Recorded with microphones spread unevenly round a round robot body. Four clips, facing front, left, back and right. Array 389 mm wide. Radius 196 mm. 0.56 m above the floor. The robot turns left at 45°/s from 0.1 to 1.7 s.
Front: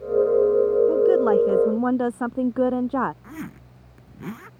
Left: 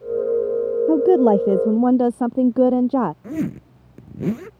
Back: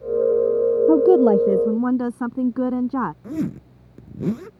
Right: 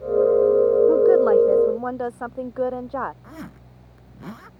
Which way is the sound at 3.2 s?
130° left.